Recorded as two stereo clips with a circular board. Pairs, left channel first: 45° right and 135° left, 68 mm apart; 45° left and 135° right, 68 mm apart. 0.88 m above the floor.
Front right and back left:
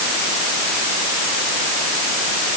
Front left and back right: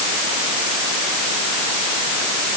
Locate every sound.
Only background noise.